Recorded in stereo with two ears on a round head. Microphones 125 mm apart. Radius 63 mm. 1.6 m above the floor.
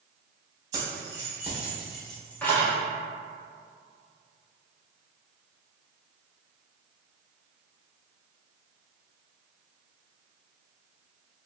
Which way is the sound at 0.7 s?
25° right (ahead or behind).